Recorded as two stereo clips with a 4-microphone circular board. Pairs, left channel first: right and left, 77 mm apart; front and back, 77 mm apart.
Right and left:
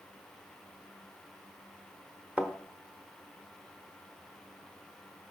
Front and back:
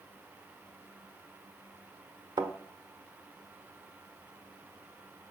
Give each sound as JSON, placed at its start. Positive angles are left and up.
{"t": 2.4, "sound": "a thud", "azimuth_deg": 165, "distance_m": 1.0}